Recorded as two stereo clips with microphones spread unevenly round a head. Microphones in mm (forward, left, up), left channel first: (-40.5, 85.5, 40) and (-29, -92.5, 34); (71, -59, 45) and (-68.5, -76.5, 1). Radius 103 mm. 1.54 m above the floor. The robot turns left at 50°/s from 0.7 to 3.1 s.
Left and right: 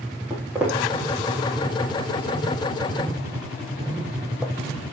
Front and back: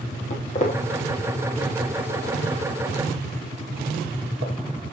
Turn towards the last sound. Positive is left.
turn(degrees=-170)